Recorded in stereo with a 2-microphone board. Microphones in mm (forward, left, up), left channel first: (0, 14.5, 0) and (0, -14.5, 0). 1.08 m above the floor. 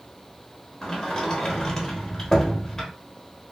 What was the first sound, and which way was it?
A sliding door, 10° left (ahead or behind).